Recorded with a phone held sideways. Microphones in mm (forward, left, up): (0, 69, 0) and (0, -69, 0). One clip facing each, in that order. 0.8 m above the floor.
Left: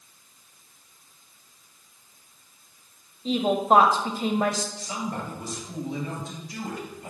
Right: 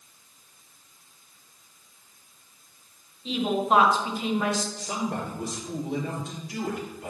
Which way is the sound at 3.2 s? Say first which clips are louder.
Left 3 dB; 40° left (ahead or behind).